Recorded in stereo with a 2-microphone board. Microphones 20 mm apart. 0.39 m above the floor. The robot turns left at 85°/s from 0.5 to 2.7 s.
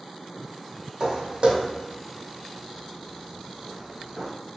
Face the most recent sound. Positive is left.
turn(degrees=-70)  # may be behind; listen again after turning